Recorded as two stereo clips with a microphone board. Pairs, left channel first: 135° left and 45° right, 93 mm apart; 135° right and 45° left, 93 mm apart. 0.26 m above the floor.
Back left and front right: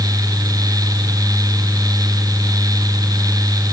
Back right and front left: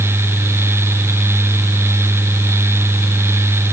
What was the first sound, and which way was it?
Only background noise.